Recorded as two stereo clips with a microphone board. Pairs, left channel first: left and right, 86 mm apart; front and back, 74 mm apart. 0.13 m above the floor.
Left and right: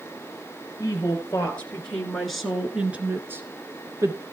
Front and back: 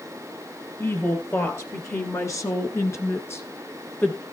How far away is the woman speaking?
About 2.5 m.